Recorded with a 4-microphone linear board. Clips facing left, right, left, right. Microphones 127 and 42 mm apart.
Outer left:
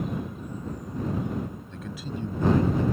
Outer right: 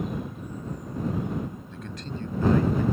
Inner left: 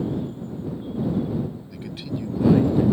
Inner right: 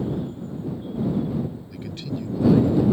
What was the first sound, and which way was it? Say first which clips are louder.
A man speaking: outer left 1 dB, even; centre (ahead or behind).